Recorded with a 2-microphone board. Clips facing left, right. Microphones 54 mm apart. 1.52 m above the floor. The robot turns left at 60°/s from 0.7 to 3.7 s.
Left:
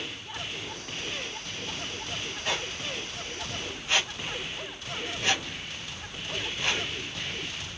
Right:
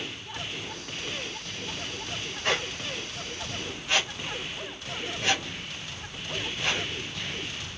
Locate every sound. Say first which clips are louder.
2.4 s a squeak: right 4 dB; 75° right (ahead or behind), 4 m; by 7.8 s centre (ahead or behind), 4 m